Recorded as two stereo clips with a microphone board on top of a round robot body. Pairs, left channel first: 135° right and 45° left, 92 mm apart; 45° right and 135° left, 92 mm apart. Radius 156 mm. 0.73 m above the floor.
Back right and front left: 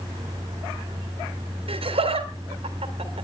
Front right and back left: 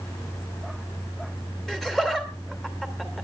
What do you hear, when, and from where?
1.7 s laughter: 40° left, 3 m